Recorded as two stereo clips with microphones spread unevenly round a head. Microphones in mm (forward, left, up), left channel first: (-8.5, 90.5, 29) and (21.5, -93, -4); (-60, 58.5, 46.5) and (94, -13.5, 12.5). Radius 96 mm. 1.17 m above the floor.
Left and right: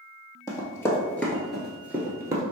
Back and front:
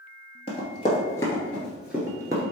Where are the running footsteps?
150° left, 1.4 m; by 2.4 s 30° right, 1.1 m.